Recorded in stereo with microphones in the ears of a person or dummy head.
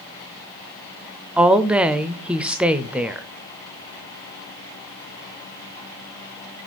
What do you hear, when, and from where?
1.4 s a woman speaking: centre (ahead or behind), 0.5 m